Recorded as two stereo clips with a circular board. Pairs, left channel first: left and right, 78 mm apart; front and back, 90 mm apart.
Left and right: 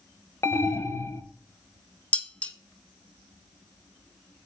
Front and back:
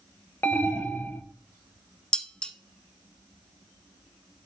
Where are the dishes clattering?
60° left, 0.8 m.